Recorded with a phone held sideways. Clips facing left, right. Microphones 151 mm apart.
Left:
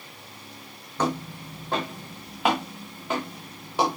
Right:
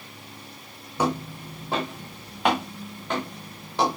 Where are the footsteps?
10° right (ahead or behind), 3 m; by 4.0 s 10° left (ahead or behind), 5 m.